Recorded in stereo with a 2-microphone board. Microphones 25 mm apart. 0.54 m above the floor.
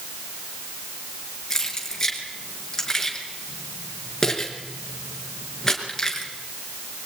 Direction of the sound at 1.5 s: 20° left (ahead or behind).